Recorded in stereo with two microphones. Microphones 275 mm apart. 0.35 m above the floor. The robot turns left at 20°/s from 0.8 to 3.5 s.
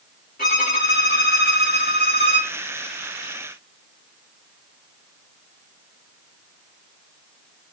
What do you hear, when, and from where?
0.4 s a violin: 110° left, 1.5 m; by 2.5 s 75° left, 1.5 m